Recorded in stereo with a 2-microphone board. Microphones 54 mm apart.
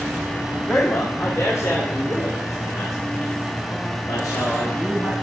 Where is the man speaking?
40° left (ahead or behind), 1.8 m; by 5.1 s 85° left, 7 m.